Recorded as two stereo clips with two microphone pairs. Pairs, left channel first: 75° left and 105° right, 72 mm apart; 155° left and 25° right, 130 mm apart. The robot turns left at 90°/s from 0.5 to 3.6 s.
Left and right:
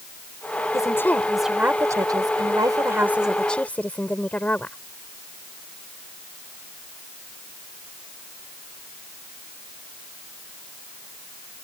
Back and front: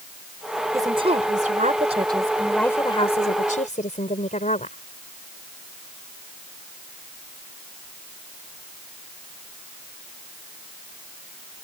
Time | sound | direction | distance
0.7 | a woman speaking | 40° left | ?